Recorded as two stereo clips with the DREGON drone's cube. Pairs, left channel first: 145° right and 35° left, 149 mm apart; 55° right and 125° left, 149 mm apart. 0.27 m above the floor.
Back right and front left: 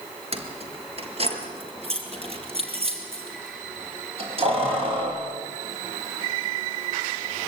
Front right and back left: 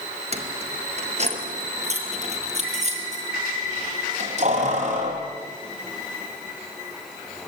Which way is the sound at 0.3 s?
80° left.